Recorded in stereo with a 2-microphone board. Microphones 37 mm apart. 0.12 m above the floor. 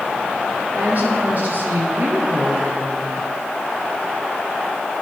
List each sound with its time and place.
0.7 s a woman speaking: 40° right (ahead or behind), 3 m; by 3.1 s 55° right (ahead or behind), 2.5 m